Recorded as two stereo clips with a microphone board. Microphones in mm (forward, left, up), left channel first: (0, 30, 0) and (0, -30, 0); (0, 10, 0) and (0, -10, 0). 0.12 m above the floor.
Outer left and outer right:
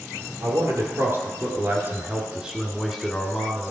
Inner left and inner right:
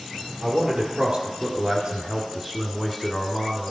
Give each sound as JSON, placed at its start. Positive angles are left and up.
{"t": 0.4, "sound": "a man speaking", "side_deg": -55, "distance_m": 1.9}